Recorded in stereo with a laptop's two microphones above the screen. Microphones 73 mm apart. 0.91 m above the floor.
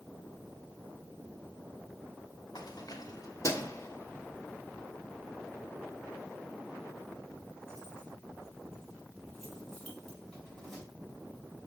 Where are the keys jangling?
70° left (ahead or behind), 1.5 m; by 10.8 s 5° left (ahead or behind), 5 m.